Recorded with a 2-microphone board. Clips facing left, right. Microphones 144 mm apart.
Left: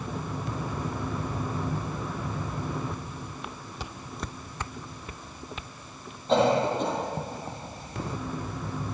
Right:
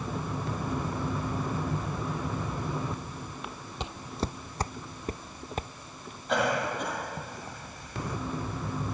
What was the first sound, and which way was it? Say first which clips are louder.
Footsteps: right 5 dB; 20° right (ahead or behind).